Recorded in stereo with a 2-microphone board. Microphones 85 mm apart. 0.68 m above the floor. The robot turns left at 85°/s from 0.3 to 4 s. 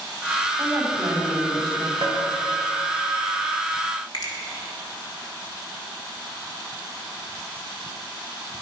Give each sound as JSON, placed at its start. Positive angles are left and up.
{"t": 0.6, "sound": "a woman speaking", "azimuth_deg": -25, "distance_m": 4.0}
{"t": 2.0, "sound": "tapping", "side_deg": -75, "distance_m": 3.0}
{"t": 4.1, "sound": "a finger snap", "side_deg": 55, "distance_m": 2.0}